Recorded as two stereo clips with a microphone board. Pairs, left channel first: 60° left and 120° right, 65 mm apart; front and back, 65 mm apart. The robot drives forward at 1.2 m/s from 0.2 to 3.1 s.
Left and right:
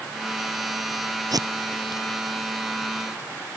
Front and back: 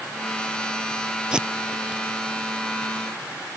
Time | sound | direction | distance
1.3 | tape being pulled | 105° right | ?